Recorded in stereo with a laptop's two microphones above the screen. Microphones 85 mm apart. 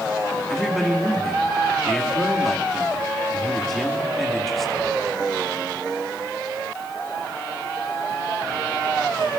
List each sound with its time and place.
0.5 s a man speaking: 5° left (ahead or behind), 2 m